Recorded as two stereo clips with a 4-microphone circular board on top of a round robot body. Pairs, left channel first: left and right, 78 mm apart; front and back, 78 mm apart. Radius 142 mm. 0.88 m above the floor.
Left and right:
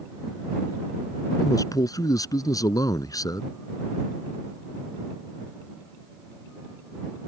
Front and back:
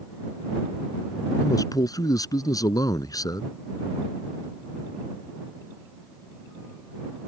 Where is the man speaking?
45° left.